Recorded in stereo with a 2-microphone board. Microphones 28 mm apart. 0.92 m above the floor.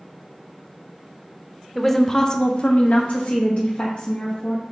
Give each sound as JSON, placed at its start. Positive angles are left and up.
{"t": 1.8, "sound": "a woman speaking", "side_deg": 5, "distance_m": 0.6}